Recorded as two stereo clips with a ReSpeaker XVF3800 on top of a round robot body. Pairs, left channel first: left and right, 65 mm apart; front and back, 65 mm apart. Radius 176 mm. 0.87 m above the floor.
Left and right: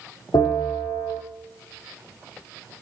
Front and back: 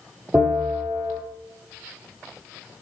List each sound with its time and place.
0.3 s a bell: 115° left, 4.5 m